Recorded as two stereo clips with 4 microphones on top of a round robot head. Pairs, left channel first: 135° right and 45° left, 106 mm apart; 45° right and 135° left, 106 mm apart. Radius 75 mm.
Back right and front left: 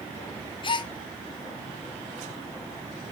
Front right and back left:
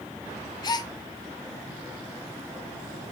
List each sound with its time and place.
0.6 s a gasp: 95° right, 0.7 m